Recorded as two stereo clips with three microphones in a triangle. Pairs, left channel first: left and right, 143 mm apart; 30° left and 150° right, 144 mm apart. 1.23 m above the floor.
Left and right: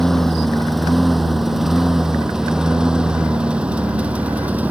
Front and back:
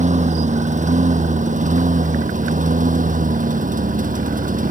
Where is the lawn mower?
Straight behind; by 4.7 s 170° right.